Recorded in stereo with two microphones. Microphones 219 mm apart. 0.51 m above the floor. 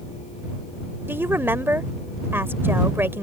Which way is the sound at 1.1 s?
10° right (ahead or behind).